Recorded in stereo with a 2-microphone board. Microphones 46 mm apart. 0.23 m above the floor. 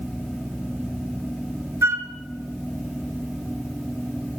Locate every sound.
1.8 s a flute: 75° right (ahead or behind), 1.6 m